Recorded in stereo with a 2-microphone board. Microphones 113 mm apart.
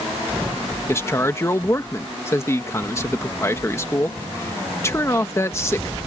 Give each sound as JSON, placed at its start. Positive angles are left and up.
{"t": 0.9, "sound": "a man speaking", "side_deg": 25}